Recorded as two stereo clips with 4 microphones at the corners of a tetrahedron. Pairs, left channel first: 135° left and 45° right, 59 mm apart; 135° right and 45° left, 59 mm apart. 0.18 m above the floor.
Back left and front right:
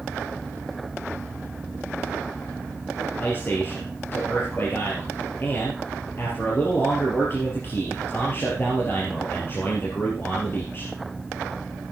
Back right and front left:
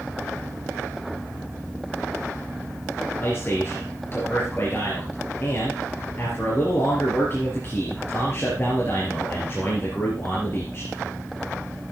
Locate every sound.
3.2 s a man speaking: straight behind, 3.5 m